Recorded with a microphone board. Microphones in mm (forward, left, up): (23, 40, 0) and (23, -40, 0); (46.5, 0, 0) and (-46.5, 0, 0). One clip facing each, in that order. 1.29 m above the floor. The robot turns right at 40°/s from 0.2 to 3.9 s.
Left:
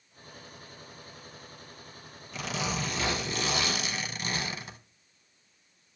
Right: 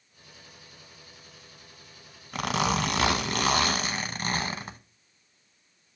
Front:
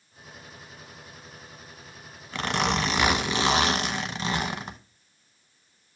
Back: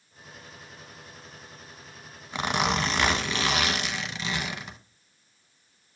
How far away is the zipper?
About 0.8 m.